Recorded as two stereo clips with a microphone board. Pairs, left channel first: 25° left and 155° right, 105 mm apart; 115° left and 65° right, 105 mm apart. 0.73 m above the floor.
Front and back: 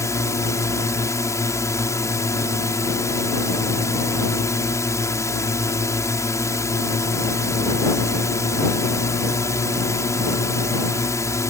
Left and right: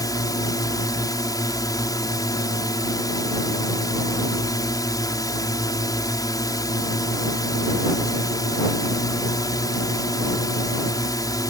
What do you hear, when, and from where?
0.0 s a drone: 75° left